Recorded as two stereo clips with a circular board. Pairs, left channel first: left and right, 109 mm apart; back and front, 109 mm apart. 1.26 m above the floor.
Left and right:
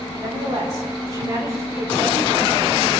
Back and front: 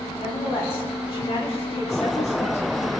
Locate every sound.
0.2 s a woman speaking: 140° right, 3.5 m; by 2.9 s straight behind, 1.9 m